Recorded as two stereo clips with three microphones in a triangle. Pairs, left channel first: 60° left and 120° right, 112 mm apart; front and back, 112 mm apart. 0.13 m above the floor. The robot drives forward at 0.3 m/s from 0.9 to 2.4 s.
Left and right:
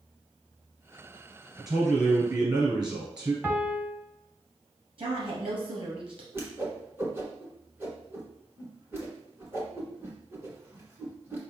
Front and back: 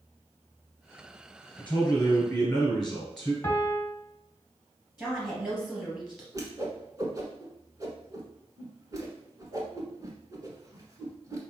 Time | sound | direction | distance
1.6 | a man speaking | 75° right | 1.9 m
3.4 | a piano | 55° right | 0.7 m
5.0 | a woman speaking | 95° right | 2.5 m
6.3 | a whoosh | 165° right | 1.3 m